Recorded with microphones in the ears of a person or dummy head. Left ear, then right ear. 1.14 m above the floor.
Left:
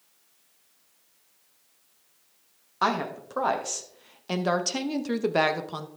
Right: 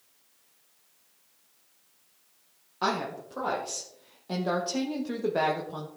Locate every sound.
2.8 s a woman speaking: 45° left (ahead or behind), 1.8 m; by 5.9 s 65° left (ahead or behind), 1.4 m